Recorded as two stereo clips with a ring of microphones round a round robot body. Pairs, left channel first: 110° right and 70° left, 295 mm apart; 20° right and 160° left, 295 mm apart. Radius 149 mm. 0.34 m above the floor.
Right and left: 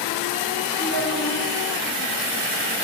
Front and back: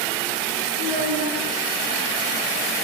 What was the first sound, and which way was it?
A child speaking, 30° right.